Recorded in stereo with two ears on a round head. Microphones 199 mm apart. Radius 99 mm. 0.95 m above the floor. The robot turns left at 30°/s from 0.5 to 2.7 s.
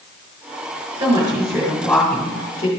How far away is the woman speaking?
About 4 m.